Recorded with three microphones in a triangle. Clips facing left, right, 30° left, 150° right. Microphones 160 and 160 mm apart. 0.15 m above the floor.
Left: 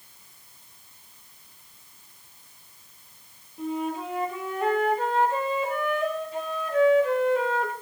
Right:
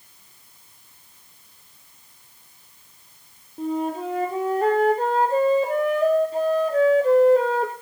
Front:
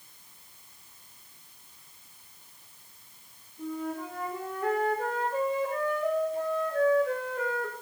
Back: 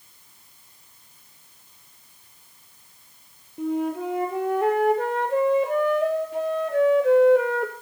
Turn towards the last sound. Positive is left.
turn(degrees=-145)